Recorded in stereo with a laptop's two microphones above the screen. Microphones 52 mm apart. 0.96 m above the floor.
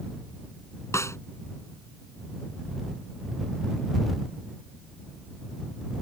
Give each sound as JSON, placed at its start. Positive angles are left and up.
{"t": 0.9, "sound": "a snare drum", "side_deg": 65}